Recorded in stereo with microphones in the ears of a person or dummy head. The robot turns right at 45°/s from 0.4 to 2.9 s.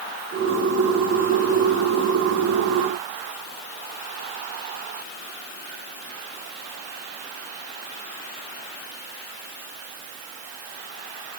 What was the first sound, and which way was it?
Only background noise.